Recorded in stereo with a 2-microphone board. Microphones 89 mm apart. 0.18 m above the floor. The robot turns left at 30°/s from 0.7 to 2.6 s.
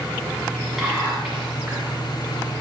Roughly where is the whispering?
Ahead.